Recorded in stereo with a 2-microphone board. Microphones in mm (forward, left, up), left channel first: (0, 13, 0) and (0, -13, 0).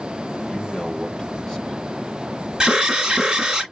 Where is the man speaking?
15° left (ahead or behind), 4 m.